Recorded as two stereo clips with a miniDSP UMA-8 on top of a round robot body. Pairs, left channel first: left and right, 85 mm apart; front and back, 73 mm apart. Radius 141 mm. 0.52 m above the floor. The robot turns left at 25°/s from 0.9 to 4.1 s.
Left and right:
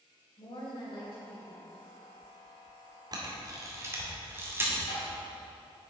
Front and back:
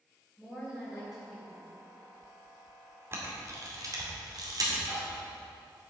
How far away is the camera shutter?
About 2.5 m.